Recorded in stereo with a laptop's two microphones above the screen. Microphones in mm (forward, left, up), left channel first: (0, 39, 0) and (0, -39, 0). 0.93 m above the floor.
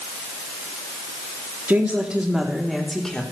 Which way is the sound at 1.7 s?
20° right (ahead or behind).